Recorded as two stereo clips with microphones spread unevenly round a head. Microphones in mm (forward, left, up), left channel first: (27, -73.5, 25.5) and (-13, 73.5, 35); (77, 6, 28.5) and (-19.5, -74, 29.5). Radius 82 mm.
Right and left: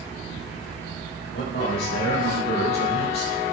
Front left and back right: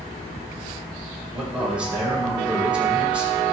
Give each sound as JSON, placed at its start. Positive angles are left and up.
{"t": 1.3, "sound": "a man speaking", "azimuth_deg": -60, "distance_m": 5.0}